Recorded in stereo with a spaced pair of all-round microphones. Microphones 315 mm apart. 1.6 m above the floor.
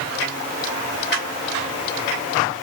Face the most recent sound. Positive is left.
No sound to turn to.